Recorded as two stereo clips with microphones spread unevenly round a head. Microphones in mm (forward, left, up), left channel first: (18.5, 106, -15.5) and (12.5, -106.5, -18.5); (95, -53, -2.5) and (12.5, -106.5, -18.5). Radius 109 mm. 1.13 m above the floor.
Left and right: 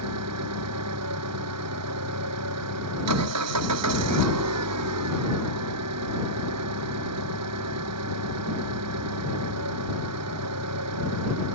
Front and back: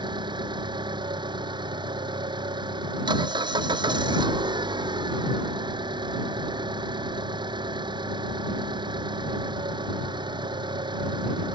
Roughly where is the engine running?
Right.